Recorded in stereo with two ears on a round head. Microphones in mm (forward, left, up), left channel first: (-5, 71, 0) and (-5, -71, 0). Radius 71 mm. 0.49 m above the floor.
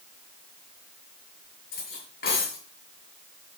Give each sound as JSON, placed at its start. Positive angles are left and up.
{"t": 1.7, "sound": "cutlery clinking", "side_deg": 65, "distance_m": 6.5}